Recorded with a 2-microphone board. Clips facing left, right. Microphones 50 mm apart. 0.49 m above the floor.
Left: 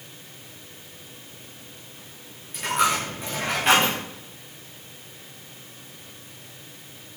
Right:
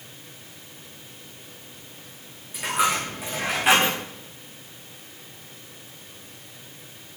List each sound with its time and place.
2.5 s a dropped coin: 10° right (ahead or behind), 8 m